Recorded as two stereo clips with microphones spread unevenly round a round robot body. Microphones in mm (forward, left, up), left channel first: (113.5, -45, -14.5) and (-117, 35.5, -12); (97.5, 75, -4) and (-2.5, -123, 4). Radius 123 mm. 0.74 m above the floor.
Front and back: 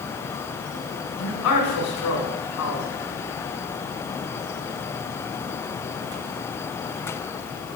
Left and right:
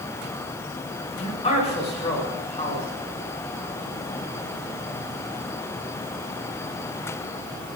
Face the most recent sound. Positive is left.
turn(degrees=5)